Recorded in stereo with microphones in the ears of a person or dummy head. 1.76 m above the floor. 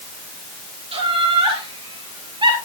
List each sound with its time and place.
0.9 s laughter: 35° right (ahead or behind), 5.5 m; by 2.5 s 25° right (ahead or behind), 6 m